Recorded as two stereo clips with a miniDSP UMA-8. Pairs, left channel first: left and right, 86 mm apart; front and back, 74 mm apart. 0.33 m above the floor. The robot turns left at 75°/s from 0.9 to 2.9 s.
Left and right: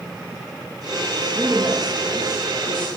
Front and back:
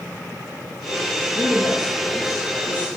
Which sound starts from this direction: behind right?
A man speaking, at 1.4 s.